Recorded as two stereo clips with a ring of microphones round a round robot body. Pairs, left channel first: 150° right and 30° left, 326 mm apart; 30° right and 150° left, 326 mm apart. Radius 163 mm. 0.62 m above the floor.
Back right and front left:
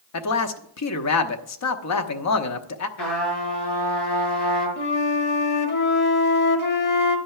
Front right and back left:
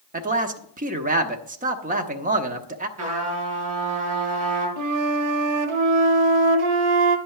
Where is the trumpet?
160° right, 7 m.